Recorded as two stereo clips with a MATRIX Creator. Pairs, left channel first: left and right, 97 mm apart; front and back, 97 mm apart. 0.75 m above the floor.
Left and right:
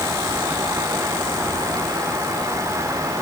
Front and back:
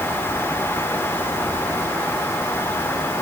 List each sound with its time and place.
Only background noise.